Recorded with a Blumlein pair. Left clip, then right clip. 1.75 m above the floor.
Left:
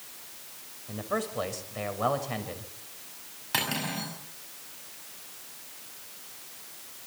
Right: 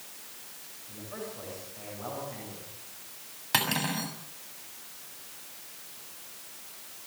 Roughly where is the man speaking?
Ahead left.